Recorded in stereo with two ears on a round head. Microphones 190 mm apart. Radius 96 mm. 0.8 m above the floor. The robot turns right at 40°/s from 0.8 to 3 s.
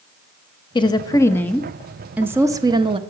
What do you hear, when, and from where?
0.8 s a woman speaking: 140° left, 0.7 m; by 3.0 s 135° right, 0.7 m